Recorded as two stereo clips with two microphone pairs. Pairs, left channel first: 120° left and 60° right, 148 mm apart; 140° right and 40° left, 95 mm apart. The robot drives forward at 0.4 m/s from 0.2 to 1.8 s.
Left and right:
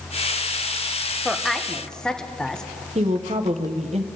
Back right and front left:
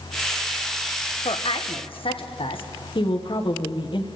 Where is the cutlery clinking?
No cutlery clinking in this recording.